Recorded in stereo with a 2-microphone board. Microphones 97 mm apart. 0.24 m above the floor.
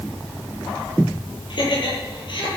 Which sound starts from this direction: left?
Laughter, at 1.5 s.